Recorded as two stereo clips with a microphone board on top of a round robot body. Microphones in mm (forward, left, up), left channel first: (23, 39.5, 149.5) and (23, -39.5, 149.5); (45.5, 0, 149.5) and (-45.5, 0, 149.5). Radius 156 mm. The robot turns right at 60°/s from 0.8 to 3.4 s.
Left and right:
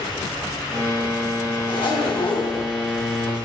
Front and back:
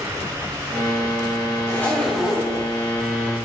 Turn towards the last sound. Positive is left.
turn(degrees=170)